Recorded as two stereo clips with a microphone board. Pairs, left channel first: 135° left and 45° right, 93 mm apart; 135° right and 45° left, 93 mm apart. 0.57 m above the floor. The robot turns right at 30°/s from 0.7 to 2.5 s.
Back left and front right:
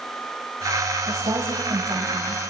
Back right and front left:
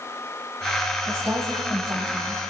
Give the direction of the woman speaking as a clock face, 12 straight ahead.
1 o'clock.